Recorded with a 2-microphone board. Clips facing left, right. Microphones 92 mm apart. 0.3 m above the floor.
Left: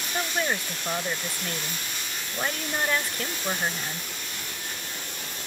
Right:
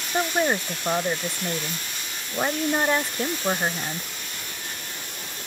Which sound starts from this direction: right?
A woman speaking, at 0.1 s.